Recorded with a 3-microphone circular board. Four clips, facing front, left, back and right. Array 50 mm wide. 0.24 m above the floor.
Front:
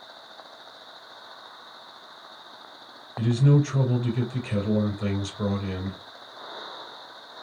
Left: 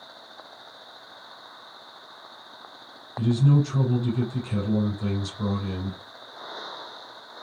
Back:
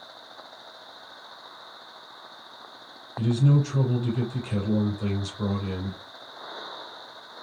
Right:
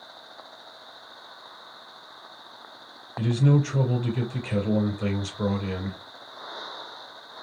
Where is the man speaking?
65° right, 3.5 m.